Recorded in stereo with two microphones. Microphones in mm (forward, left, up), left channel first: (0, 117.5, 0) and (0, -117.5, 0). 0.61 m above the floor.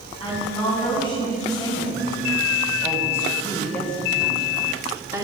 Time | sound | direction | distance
0.2 | a woman speaking | 20° left (ahead or behind) | 4 m